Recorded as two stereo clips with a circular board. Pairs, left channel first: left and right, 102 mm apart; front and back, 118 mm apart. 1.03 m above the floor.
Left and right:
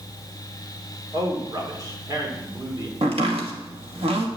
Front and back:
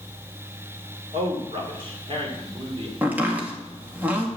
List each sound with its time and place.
1.1 s a man speaking: 145° right, 3 m
3.0 s chopping: 105° right, 1.8 m